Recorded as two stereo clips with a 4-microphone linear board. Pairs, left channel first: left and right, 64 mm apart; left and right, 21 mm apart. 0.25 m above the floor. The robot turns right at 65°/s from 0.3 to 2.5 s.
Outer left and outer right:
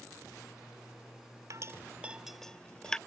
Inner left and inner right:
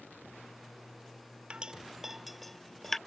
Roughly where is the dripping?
Right.